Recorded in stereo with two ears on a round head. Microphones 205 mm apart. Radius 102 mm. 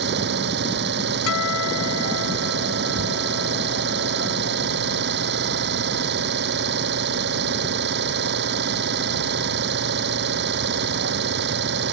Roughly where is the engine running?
Right.